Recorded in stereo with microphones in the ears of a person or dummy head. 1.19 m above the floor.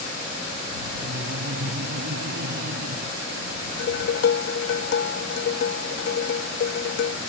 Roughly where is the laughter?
Right.